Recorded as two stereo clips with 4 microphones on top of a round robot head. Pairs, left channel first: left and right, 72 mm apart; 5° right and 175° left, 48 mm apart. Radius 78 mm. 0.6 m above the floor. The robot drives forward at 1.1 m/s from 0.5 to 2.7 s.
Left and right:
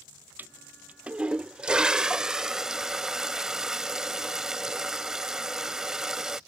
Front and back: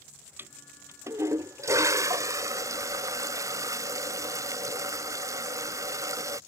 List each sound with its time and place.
0.4 s a toilet flushing: 150° right; by 6.4 s 170° right